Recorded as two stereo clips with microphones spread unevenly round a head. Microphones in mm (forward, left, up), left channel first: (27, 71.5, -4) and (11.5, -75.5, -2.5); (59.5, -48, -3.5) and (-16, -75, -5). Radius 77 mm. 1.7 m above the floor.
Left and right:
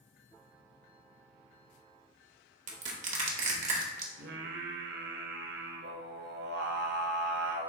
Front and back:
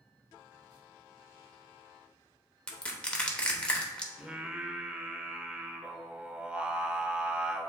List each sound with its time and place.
2.7 s crushing: 55° right, 1.0 m
4.2 s singing: 80° right, 0.7 m